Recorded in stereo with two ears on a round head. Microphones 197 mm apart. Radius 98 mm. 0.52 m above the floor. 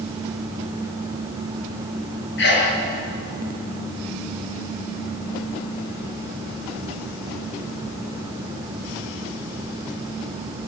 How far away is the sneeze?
About 7.5 m.